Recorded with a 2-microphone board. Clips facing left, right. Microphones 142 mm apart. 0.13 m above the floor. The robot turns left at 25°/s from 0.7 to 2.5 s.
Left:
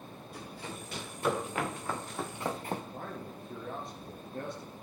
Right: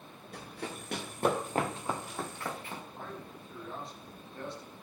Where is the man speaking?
50° left (ahead or behind), 2.5 m.